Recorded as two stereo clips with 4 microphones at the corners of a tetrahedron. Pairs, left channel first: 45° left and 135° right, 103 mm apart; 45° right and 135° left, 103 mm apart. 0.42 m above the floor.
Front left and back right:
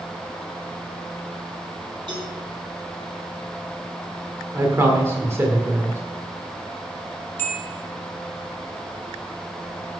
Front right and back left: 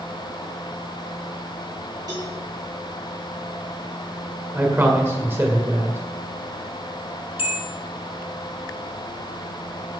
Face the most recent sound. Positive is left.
turn(degrees=-25)